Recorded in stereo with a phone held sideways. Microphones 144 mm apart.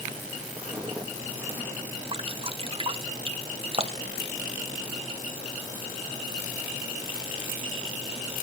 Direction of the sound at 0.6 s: 20° right (ahead or behind).